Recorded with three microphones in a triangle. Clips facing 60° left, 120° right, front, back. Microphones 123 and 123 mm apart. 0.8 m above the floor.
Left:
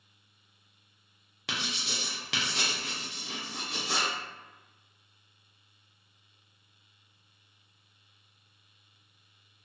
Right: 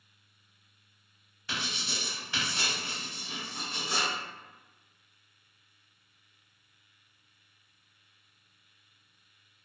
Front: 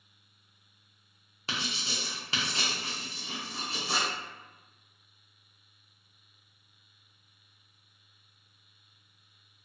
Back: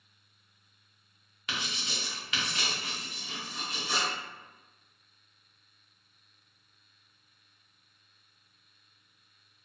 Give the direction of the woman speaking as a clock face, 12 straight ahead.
I don't hear a woman speaking.